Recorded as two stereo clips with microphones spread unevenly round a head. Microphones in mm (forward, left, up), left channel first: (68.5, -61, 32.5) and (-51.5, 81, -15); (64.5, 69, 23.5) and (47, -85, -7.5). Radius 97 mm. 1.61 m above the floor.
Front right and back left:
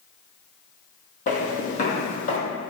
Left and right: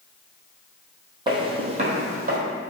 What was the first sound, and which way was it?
Footsteps, 35° right.